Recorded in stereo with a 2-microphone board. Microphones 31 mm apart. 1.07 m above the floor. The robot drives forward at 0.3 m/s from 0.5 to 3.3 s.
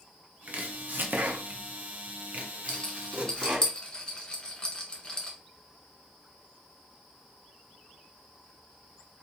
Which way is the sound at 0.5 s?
55° right (ahead or behind).